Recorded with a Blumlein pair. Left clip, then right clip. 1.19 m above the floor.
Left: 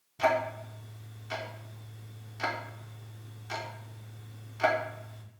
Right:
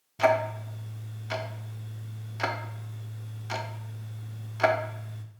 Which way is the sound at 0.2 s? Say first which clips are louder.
Right 4 dB; 15° right.